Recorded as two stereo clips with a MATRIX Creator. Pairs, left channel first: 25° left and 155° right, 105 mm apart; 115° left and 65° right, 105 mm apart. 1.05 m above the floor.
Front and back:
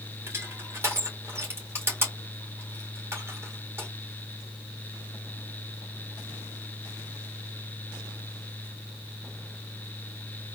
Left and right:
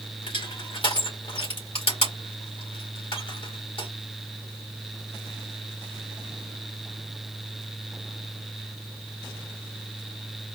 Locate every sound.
0.3 s crushing: 140° left, 1.9 m